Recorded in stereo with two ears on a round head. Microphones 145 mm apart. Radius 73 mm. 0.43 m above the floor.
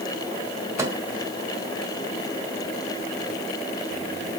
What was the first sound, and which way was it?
A microwave, 20° right (ahead or behind).